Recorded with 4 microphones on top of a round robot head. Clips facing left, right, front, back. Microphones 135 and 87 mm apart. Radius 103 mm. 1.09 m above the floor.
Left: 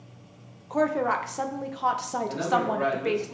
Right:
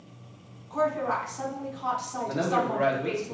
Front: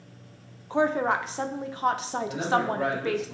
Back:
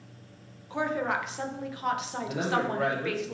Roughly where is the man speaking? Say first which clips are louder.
Even, front 2 dB; behind right.